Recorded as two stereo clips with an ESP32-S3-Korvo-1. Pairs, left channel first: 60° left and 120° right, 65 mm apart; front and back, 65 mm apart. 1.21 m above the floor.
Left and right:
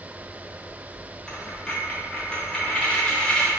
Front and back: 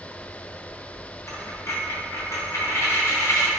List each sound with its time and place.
1.3 s a dropped coin: 10° right, 0.6 m